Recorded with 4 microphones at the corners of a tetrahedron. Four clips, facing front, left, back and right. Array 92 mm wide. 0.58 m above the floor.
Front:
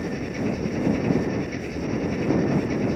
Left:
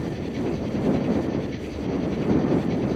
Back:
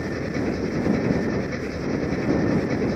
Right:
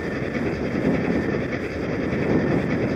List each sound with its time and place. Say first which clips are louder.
0.0 s an engine running: right 2 dB, back 1 dB; 120° right